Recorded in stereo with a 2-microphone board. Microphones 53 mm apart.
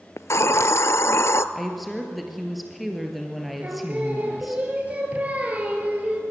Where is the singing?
30° right (ahead or behind), 3 m.